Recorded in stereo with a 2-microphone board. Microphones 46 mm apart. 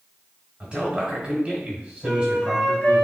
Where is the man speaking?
25° right (ahead or behind), 1.2 m.